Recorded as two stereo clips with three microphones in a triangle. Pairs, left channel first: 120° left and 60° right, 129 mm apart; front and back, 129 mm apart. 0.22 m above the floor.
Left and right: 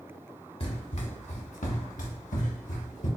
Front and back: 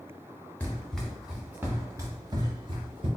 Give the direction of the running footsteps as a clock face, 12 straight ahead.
9 o'clock.